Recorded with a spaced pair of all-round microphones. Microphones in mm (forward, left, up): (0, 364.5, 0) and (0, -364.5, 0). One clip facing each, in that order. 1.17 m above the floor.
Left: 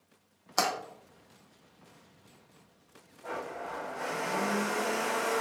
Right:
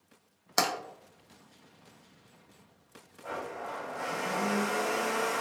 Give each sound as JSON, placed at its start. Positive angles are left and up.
{"t": 0.6, "sound": "tapping", "side_deg": -55, "distance_m": 0.6}
{"t": 3.2, "sound": "a blender", "side_deg": -20, "distance_m": 1.3}